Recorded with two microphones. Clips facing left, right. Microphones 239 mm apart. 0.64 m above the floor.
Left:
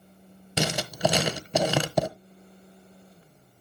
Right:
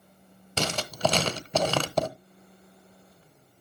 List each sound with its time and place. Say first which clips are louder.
0.6 s writing: left 2 dB; 10° left (ahead or behind), 0.8 m